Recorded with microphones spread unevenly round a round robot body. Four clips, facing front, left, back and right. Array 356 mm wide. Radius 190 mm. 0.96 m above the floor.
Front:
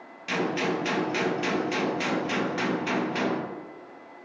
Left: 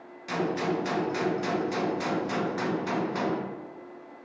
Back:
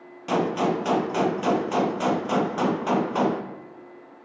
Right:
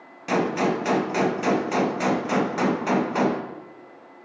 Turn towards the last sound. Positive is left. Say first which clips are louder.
# right 6 dB, back 4 dB
turn(degrees=-110)